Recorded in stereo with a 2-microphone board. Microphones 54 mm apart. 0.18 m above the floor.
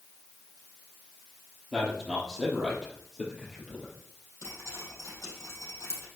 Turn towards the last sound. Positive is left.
turn(degrees=70)  # may be behind; listen again after turning